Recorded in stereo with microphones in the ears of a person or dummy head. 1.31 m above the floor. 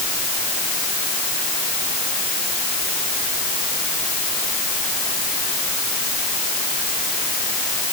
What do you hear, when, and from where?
Only background noise.